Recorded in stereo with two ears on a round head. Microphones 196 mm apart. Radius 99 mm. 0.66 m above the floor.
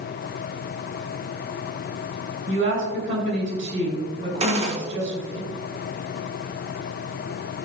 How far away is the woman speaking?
About 4.5 m.